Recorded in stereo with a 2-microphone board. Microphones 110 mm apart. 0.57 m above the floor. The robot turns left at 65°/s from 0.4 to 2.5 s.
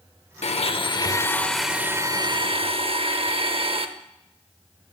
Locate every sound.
0.4 s a blender: 75° left, 0.6 m; by 3.9 s 60° right, 0.6 m